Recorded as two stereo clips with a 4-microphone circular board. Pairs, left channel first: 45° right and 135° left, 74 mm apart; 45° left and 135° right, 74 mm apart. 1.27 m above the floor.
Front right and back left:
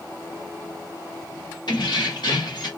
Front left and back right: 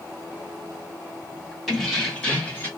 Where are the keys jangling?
45° right, 1.4 m; by 2.7 s 20° right, 1.4 m.